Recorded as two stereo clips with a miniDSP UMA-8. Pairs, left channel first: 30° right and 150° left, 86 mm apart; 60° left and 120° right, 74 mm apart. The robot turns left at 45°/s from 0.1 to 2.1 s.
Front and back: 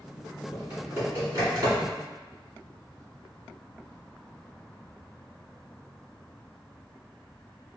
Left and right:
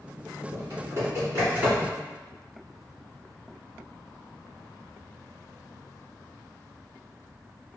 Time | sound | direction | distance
0.5 | typing on a keyboard | 135° right | 1.8 m